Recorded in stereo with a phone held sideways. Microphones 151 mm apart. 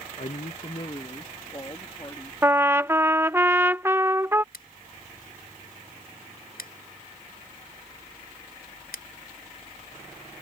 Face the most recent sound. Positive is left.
turn(degrees=90)